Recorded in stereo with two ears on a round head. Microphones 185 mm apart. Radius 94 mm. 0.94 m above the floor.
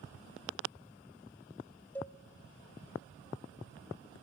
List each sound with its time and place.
1.9 s a cowbell: 10° left (ahead or behind), 0.8 m